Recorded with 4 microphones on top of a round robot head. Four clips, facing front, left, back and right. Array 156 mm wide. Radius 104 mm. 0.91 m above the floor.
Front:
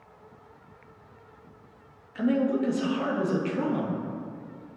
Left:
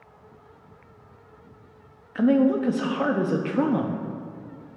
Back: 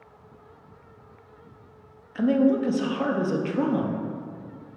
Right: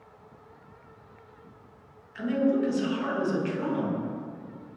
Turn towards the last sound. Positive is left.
turn(degrees=105)